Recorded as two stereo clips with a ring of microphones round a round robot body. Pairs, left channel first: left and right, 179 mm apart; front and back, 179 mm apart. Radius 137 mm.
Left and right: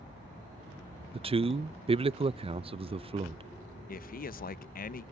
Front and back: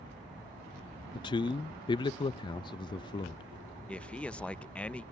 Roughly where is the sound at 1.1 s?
Ahead right.